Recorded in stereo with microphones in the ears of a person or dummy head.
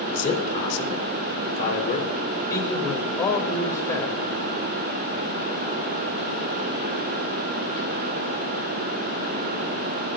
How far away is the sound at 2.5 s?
About 2.5 m.